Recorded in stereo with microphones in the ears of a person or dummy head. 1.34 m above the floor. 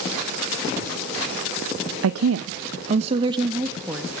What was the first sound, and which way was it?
A woman speaking, 80° right.